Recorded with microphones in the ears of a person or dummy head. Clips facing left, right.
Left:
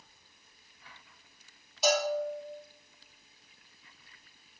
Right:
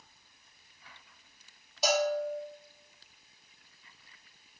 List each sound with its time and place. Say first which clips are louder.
1.8 s a bell: even; 70° right (ahead or behind), 1.6 m